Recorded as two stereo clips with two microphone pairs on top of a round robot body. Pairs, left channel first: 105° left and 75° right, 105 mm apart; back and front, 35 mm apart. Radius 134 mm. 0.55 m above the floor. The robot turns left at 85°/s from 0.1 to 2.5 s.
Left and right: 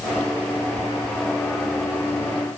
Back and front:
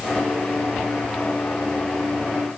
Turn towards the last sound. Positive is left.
No sound to turn to.